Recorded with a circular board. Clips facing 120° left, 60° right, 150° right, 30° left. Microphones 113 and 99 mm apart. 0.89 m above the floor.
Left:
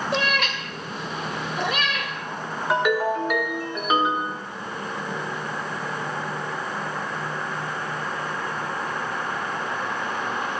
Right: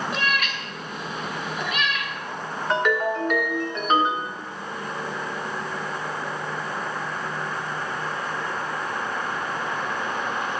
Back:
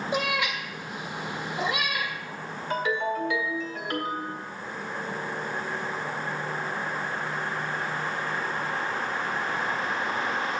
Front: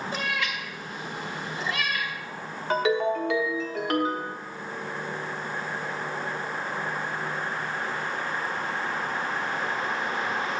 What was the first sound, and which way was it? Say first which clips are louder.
A cat meowing: left 2 dB, back 5 dB; 140° left.